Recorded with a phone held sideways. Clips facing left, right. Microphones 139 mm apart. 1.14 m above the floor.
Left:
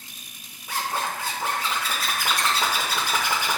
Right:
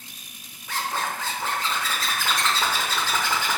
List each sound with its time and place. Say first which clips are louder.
0.7 s a zipper: even; 15° left (ahead or behind), 0.7 m